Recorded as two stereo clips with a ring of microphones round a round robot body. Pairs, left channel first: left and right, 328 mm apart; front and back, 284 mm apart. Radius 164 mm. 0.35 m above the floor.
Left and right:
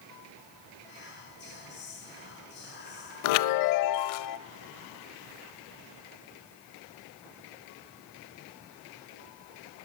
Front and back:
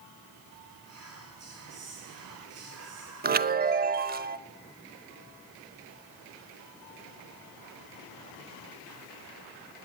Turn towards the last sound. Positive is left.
turn(degrees=120)